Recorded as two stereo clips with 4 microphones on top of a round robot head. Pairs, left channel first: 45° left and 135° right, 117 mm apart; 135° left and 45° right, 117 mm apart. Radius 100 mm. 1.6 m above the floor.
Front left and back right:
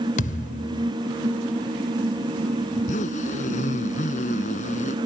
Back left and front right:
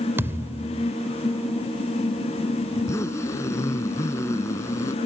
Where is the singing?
I don't hear singing.